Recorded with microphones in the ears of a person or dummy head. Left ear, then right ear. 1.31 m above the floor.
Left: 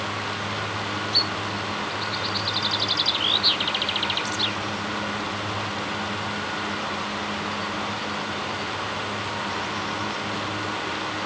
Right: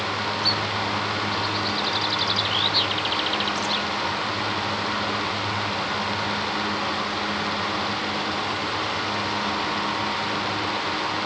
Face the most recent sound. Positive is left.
No sound to turn to.